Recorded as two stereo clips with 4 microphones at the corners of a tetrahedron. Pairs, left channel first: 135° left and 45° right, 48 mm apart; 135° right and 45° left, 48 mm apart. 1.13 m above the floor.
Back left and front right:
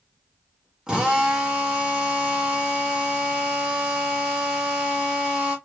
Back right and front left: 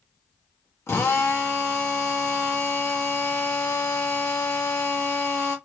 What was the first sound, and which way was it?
A drill, 115° right.